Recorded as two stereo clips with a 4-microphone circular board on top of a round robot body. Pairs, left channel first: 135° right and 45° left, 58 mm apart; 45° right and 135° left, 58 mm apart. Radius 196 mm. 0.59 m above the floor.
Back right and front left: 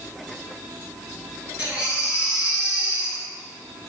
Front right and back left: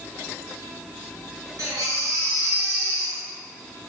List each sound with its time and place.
1.6 s a baby crying: 115° left, 4 m